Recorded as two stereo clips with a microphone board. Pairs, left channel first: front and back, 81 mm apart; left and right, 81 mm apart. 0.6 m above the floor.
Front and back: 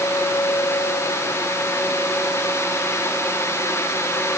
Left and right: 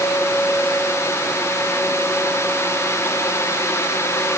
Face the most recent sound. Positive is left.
No sound to turn to.